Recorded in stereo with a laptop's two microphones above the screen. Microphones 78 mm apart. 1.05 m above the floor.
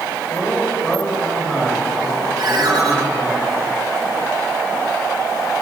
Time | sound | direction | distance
0.3 | a man speaking | 15° left (ahead or behind) | 5 m
2.4 | a ringtone | 55° right (ahead or behind) | 5.5 m